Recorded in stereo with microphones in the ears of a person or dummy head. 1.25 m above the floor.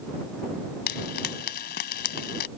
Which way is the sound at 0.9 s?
50° left (ahead or behind).